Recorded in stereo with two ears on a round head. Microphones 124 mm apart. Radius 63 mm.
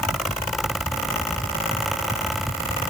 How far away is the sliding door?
No sliding door in this recording.